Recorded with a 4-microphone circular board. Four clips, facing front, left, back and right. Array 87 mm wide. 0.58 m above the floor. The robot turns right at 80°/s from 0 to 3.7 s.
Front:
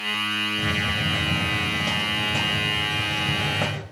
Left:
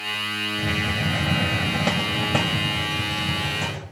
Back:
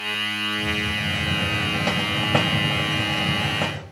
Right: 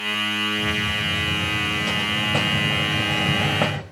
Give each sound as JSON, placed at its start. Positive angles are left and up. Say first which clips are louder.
{"t": 0.6, "sound": "a hiss", "louder": "even, front 1 dB", "azimuth_deg": 25, "distance_m": 2.5}